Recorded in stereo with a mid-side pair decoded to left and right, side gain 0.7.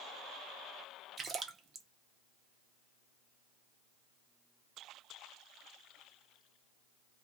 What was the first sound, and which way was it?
A splash, 25° right.